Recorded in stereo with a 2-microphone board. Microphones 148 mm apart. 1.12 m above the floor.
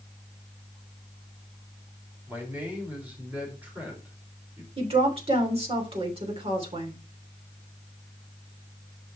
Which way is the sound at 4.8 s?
40° right (ahead or behind).